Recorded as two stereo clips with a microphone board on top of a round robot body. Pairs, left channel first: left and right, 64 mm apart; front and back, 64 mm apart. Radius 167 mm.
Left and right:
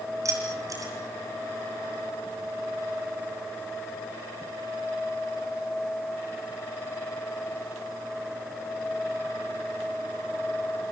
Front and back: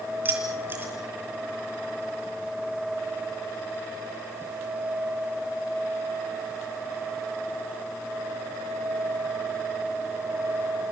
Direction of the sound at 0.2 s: 120° right.